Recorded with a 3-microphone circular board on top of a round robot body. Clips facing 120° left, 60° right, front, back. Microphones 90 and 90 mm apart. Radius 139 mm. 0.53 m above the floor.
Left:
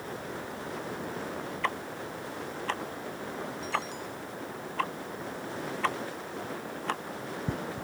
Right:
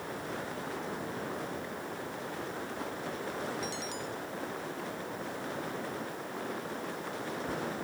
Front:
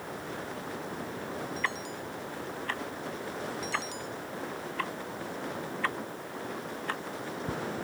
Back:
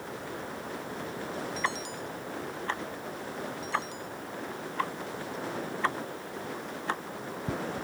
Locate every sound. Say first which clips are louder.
1.6 s ticking: left 5 dB, back 2 dB; 110° left